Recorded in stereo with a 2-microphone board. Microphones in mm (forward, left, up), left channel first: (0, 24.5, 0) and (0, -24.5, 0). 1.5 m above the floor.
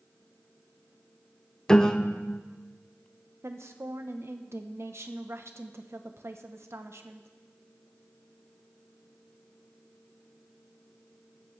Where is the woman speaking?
65° right (ahead or behind), 0.8 m.